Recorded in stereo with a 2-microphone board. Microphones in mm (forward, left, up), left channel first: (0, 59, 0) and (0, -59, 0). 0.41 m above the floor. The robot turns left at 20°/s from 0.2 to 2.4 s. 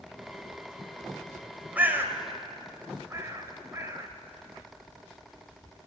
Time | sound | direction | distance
1.8 | a bird | 15° right (ahead or behind) | 1.9 m